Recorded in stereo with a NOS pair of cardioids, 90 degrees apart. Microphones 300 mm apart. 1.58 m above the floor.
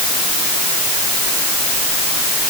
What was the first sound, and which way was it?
Only background noise.